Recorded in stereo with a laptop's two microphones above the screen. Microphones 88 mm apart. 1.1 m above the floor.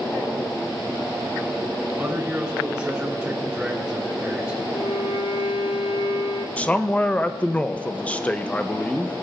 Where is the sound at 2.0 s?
10° right (ahead or behind), 3.5 m.